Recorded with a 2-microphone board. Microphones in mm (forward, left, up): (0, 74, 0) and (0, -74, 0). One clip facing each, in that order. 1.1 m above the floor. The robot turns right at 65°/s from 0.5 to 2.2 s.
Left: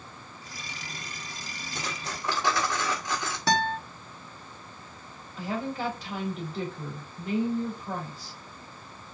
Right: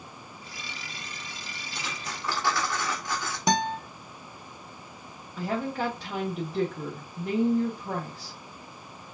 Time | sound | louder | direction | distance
1.8 | cutlery clinking | left 2 dB | 45° left (ahead or behind) | 1.6 m
3.5 | a guitar | right 1 dB | 15° right (ahead or behind) | 0.7 m
5.4 | a woman speaking | right 2 dB | 75° right (ahead or behind) | 1.6 m